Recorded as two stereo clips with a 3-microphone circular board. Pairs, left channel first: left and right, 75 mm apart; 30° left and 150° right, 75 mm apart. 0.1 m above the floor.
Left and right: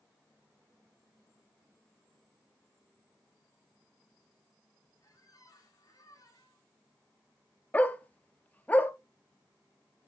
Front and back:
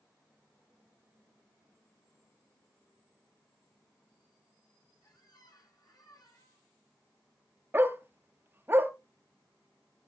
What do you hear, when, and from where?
5.0 s a squeak: 50° left, 2 m
7.7 s a dog barking: 155° left, 0.8 m